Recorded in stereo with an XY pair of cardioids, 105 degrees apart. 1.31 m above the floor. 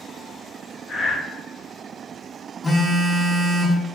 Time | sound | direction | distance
0.9 | breathing | 20° left | 0.8 m
2.6 | a phone buzzing | 20° left | 0.6 m